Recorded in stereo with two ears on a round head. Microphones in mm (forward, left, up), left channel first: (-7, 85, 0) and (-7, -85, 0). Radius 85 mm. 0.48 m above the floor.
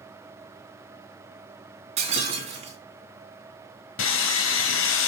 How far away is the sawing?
About 1.6 m.